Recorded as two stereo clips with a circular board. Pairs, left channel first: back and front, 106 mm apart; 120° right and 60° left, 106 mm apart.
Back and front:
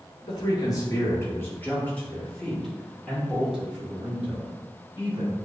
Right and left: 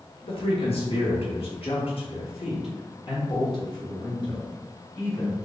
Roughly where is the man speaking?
Behind right.